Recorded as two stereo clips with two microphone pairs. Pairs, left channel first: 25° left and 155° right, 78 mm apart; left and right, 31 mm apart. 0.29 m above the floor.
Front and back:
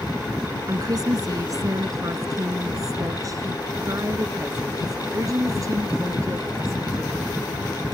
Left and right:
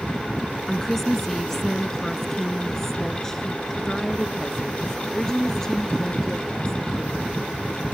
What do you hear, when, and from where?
0.7 s a woman speaking: 170° left; by 7.3 s 160° left